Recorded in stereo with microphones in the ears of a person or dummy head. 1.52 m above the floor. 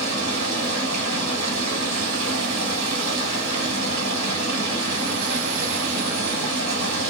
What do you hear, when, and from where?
0.0 s running water: 80° right, 1.4 m